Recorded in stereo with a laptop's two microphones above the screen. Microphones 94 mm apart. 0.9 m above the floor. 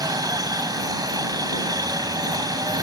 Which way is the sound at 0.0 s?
40° right (ahead or behind).